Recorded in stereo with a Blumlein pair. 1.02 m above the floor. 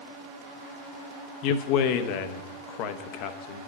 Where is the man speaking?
40° left, 0.9 m.